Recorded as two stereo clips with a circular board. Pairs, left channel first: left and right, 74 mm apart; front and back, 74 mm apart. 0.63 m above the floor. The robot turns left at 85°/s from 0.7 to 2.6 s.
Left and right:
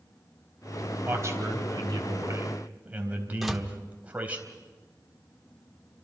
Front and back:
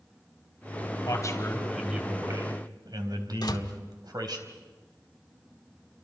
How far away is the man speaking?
About 4 m.